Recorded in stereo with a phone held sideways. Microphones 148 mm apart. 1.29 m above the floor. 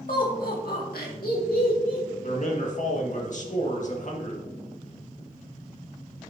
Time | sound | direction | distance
0.1 | laughter | 65° left (ahead or behind) | 2 m
2.2 | a man speaking | 55° left (ahead or behind) | 1.8 m